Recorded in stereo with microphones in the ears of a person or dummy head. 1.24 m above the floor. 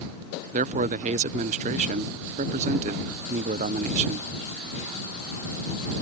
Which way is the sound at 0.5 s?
35° right (ahead or behind).